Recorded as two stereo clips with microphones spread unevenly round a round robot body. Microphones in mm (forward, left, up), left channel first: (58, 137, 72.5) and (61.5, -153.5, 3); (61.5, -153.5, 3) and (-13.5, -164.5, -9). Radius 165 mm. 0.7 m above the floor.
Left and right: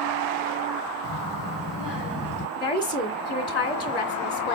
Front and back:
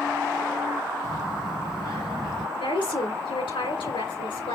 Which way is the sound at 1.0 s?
115° left.